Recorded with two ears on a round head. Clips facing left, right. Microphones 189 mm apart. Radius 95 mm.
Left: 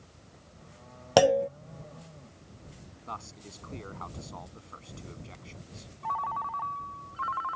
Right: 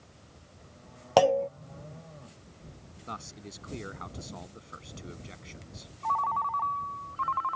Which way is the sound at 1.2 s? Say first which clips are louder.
Left 1 dB; 15° left (ahead or behind).